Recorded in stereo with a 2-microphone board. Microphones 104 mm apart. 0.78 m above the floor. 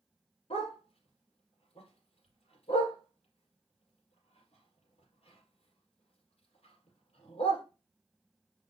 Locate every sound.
0.5 s a dog barking: 80° left, 4 m